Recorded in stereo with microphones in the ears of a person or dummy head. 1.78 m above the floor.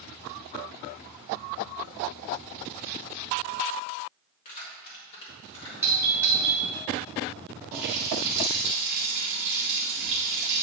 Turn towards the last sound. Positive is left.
turn(degrees=-35)  # may be behind; listen again after turning